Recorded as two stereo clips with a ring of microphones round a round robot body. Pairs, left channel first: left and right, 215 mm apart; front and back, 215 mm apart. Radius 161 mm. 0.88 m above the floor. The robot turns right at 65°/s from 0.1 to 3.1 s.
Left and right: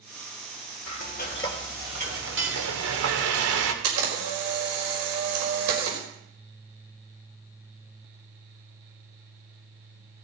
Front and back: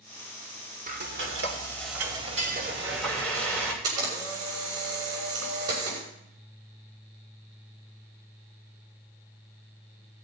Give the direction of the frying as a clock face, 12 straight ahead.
8 o'clock.